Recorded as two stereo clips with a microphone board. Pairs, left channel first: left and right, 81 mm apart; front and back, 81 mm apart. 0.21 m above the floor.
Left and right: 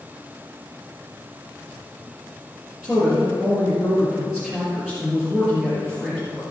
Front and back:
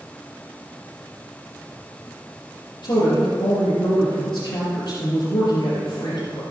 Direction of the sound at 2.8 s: 10° right.